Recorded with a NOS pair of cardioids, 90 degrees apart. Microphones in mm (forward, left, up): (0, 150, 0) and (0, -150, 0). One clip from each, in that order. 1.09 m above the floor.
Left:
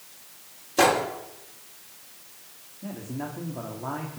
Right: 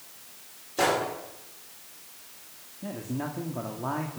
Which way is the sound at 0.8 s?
45° left.